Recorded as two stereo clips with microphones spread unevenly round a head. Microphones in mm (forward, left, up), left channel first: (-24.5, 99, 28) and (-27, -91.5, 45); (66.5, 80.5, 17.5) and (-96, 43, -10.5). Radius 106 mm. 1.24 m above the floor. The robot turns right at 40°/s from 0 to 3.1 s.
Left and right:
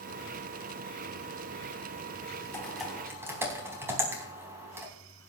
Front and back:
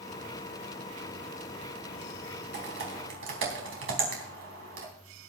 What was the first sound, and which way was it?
Typing on a keyboard, 170° left.